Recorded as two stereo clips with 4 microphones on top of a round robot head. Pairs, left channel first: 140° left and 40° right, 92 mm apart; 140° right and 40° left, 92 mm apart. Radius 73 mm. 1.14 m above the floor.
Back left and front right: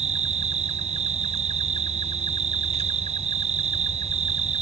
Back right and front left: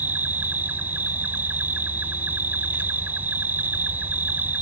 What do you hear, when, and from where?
0.0 s an insect: 35° right